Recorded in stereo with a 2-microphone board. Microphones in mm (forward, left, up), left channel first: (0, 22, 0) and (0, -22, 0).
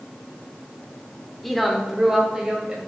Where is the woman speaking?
5° left (ahead or behind), 1.6 m; by 2.8 s 15° right (ahead or behind), 3 m.